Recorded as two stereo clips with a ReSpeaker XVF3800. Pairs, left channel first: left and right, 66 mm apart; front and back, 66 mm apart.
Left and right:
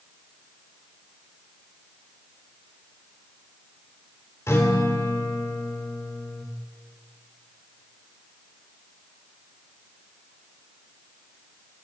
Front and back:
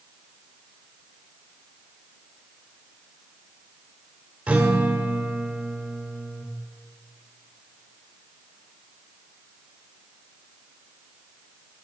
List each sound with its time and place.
4.5 s a guitar: 115° left, 2 m